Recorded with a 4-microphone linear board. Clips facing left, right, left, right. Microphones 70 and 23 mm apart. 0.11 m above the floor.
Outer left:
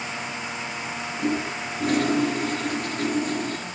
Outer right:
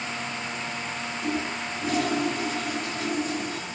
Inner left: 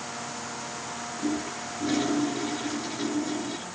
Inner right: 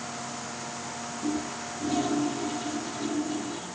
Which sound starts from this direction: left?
A toilet flushing, at 1.2 s.